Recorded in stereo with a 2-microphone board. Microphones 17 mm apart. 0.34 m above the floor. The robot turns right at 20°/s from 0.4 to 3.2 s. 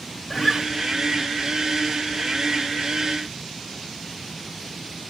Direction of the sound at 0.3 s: 25° left (ahead or behind).